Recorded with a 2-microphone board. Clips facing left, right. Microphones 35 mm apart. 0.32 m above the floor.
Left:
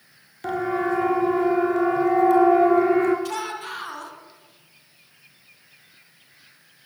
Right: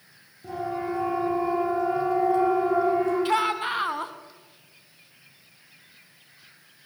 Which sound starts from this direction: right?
A shout, at 3.2 s.